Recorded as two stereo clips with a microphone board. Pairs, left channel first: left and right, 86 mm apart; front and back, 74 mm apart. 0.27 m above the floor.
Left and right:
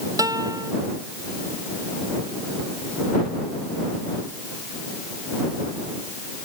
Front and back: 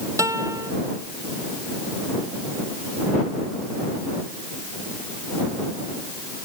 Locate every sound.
0.2 s a guitar: 135° right